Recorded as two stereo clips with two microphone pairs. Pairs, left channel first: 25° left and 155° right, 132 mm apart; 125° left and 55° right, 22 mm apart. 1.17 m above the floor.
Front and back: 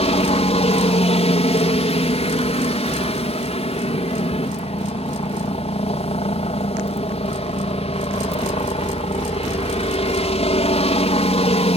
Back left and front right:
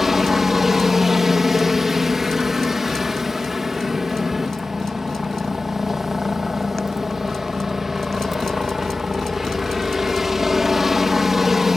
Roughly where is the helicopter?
Ahead.